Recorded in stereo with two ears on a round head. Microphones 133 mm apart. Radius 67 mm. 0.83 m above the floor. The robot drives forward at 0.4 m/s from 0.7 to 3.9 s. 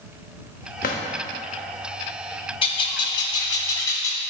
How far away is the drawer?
About 0.9 m.